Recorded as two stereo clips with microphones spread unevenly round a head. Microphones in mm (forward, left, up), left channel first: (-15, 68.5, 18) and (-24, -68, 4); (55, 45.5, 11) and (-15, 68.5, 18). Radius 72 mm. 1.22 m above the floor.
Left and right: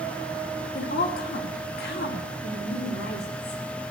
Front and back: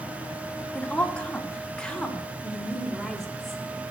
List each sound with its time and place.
0.8 s a woman speaking: 55° left, 2 m; by 3.6 s 70° left, 3.5 m